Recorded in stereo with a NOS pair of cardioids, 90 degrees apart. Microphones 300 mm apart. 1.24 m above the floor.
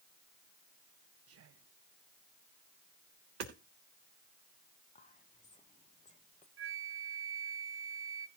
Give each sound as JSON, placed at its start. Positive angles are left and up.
{"t": 1.3, "sound": "whispering", "azimuth_deg": -55, "distance_m": 0.8}
{"t": 3.4, "sound": "hammering", "azimuth_deg": -55, "distance_m": 3.5}
{"t": 5.0, "sound": "whispering", "azimuth_deg": 25, "distance_m": 1.1}
{"t": 6.6, "sound": "a flute", "azimuth_deg": -45, "distance_m": 0.8}